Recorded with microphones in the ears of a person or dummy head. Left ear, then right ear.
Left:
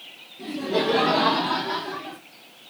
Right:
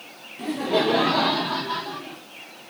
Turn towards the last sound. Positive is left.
turn(degrees=35)  # may be behind; listen again after turning